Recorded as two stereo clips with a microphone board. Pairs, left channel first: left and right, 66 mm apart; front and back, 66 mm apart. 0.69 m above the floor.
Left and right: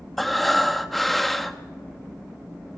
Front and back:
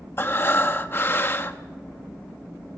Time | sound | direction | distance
0.2 | breathing | 5° left | 0.9 m